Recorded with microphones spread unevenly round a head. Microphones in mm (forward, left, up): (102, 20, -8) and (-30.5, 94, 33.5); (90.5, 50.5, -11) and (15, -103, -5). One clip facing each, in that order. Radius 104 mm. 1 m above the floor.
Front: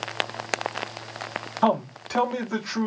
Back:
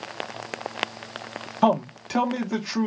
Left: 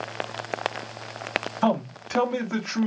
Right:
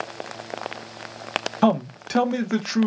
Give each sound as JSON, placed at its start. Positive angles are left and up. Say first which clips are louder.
{"t": 1.6, "sound": "a man speaking", "louder": "back 2 dB, right 4 dB", "azimuth_deg": -130, "distance_m": 0.8}